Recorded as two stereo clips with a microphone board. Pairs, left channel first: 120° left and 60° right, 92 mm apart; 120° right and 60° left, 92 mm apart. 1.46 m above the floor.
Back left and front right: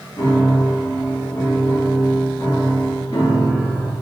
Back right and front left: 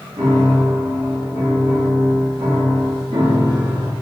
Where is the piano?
80° left, 1.4 m.